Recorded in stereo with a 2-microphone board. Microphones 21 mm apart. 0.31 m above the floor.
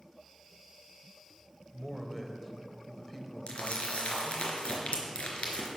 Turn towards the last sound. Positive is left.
turn(degrees=80)